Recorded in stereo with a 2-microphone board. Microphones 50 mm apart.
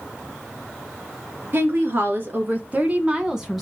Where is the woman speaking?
45° right (ahead or behind), 3.5 m; by 3.6 s centre (ahead or behind), 1.6 m.